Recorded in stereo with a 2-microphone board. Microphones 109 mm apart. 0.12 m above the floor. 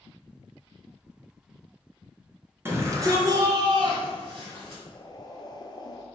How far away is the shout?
About 1.1 m.